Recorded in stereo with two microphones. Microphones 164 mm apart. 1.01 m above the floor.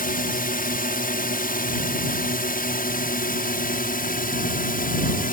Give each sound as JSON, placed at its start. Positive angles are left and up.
{"t": 0.0, "sound": "a drone", "side_deg": 60}